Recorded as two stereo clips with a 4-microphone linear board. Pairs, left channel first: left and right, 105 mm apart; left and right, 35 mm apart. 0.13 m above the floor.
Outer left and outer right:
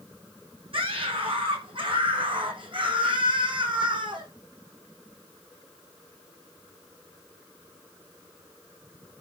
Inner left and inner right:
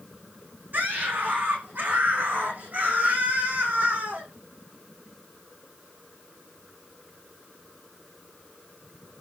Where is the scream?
55° right (ahead or behind), 7.5 m; by 4.3 s 50° right (ahead or behind), 6 m.